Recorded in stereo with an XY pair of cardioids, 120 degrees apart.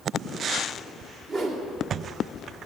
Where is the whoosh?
45° right, 2 m.